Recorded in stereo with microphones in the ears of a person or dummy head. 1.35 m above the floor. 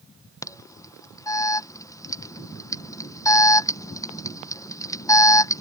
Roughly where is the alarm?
Centre.